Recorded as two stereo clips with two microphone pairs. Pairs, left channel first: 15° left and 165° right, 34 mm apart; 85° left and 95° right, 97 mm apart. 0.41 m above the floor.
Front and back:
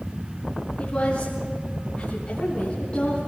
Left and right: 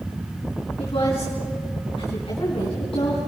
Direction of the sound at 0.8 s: 70° left.